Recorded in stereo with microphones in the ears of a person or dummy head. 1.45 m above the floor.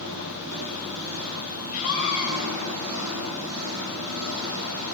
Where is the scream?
45° left (ahead or behind), 7 m.